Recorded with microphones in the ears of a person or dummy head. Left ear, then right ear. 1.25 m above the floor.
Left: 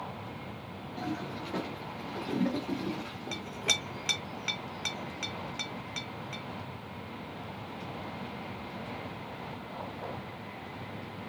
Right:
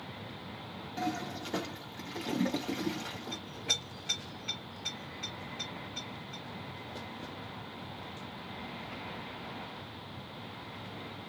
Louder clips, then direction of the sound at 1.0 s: Right 2 dB; 55° right (ahead or behind).